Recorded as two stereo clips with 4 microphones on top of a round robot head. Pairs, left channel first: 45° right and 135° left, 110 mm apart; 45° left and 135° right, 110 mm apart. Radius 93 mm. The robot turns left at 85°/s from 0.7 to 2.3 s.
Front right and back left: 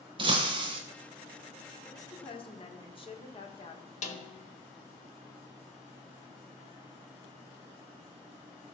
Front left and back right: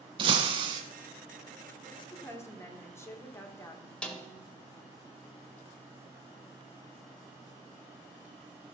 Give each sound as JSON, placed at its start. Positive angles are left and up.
{"t": 0.2, "sound": "breaking glass", "azimuth_deg": 180, "distance_m": 0.5}
{"t": 1.9, "sound": "a woman speaking", "azimuth_deg": 15, "distance_m": 1.6}
{"t": 4.0, "sound": "a snare drum", "azimuth_deg": -35, "distance_m": 1.5}